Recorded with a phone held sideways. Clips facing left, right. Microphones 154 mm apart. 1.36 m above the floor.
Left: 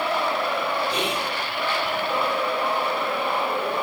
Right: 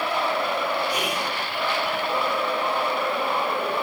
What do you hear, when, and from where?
0.9 s whispering: 30° left (ahead or behind), 3.5 m